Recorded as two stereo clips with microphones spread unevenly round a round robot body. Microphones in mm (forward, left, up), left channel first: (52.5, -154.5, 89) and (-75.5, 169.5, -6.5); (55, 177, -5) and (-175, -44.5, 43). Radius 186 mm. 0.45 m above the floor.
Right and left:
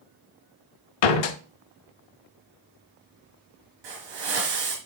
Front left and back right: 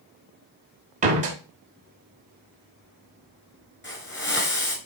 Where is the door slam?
65° right, 1.0 m.